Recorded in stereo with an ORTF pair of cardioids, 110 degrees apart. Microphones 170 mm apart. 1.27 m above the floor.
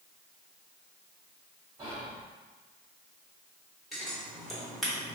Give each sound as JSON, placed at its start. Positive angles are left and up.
{"t": 1.8, "sound": "whispering", "azimuth_deg": -20, "distance_m": 0.8}
{"t": 3.9, "sound": "scissors", "azimuth_deg": 0, "distance_m": 1.1}